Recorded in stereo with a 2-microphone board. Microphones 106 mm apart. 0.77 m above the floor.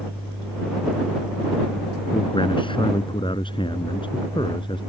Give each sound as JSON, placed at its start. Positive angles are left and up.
{"t": 2.1, "sound": "a man speaking", "side_deg": 50}